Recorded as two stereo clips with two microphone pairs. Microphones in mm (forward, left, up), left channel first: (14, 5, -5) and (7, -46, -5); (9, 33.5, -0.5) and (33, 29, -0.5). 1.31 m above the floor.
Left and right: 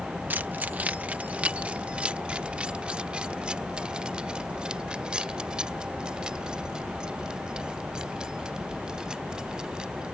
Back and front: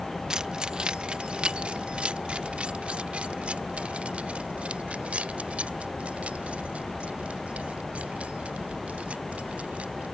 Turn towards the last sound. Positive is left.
turn(degrees=-25)